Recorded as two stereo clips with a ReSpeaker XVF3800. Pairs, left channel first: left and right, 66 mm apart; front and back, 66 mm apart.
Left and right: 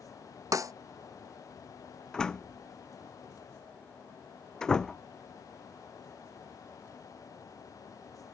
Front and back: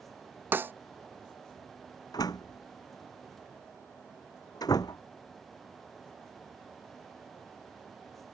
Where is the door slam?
10° left.